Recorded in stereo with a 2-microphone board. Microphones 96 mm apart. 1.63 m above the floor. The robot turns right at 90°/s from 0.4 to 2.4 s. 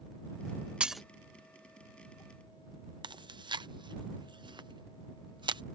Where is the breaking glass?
10° right (ahead or behind); by 1.0 s 5° left (ahead or behind).